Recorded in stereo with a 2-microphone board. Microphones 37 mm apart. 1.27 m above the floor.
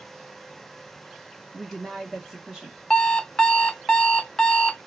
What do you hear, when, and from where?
1.5 s a woman speaking: 10° right (ahead or behind), 0.8 m; by 2.8 s 25° right (ahead or behind), 1.4 m
2.9 s an alarm clock: 20° left (ahead or behind), 0.6 m